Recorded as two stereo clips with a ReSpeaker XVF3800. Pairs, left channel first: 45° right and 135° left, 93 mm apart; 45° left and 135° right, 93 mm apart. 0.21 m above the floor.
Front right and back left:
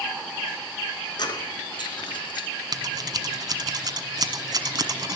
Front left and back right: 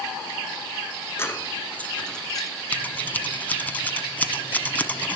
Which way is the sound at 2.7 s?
115° left.